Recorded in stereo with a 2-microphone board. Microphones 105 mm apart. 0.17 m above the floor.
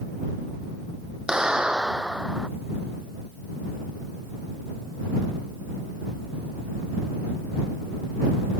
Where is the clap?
5° right (ahead or behind).